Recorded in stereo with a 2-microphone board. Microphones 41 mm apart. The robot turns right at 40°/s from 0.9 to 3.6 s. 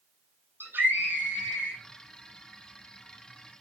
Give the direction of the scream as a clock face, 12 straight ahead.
3 o'clock.